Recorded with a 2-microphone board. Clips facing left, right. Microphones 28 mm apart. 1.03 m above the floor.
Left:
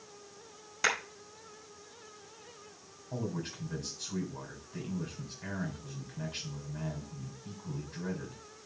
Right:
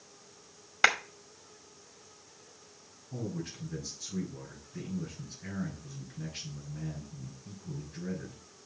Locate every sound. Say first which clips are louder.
0.8 s a clap: right 5 dB; 40° right (ahead or behind), 1.8 m
3.1 s a man speaking: left 1 dB; 85° left, 3 m